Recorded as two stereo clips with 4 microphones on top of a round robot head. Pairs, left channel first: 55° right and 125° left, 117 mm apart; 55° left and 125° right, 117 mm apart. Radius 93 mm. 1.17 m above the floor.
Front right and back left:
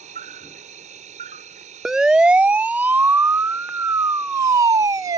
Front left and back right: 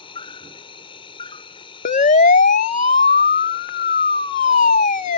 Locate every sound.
0.0 s an insect: 100° left
1.9 s a siren: 40° left; by 5.2 s 65° left